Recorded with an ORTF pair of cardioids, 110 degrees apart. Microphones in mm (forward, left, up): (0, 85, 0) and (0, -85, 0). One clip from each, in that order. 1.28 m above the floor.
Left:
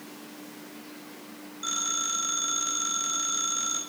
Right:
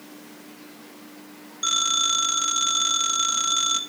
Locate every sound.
1.6 s a phone ringing: 55° right, 2 m